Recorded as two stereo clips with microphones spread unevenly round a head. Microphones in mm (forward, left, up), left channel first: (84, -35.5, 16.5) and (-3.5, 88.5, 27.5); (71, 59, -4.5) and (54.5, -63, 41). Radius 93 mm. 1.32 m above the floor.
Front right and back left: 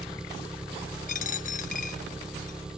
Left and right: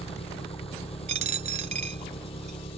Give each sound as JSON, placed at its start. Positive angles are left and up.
{"t": 0.0, "sound": "an engine running", "azimuth_deg": 40}
{"t": 1.1, "sound": "a dropped coin", "azimuth_deg": -105}